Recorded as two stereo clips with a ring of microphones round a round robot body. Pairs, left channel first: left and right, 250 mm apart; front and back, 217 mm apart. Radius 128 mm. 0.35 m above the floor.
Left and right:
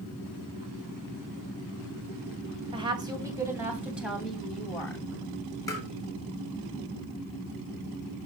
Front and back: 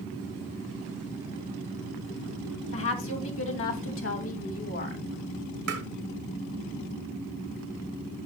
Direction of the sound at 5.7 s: 170° left.